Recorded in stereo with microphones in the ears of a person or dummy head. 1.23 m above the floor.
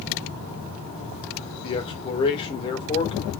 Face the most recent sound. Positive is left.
turn(degrees=25)  # may be behind; listen again after turning